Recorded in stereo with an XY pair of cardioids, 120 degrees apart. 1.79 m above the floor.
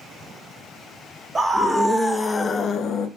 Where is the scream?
20° right, 1.0 m; by 3.1 s 65° left, 0.7 m.